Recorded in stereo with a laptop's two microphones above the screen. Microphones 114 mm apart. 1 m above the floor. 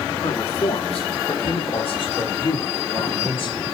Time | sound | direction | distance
0.2 | a man speaking | 75° left (ahead or behind) | 2.5 m